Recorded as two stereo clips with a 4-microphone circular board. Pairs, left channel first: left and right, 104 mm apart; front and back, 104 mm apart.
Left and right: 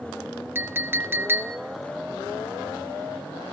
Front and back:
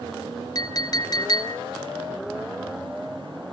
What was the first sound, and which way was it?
A clink, 30° right.